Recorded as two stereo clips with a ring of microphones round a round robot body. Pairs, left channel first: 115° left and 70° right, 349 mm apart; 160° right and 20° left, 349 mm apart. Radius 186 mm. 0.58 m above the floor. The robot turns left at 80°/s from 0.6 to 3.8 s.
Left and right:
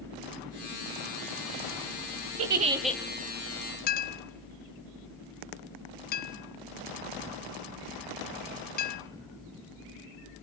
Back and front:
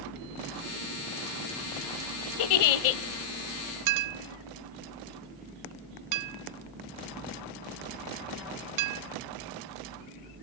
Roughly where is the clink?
Ahead left.